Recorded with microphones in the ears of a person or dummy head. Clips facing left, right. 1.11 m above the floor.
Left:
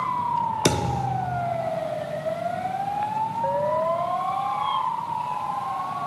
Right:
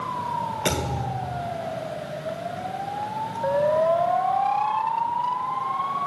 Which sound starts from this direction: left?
A thud, at 0.7 s.